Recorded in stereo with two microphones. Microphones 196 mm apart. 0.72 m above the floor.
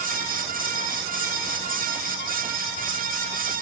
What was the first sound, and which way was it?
Only background noise.